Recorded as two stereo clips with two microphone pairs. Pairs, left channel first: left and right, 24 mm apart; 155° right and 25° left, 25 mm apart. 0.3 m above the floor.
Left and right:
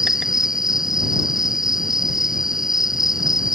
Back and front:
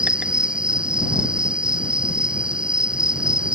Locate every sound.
0.0 s an insect: 25° right